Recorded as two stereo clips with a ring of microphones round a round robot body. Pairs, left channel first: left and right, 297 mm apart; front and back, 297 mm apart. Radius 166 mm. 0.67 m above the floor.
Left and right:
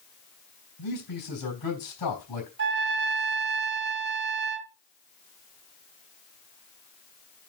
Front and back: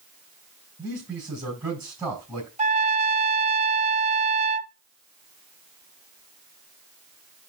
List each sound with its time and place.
0.8 s a man speaking: 100° left, 4.5 m
2.6 s a trumpet: 125° right, 0.6 m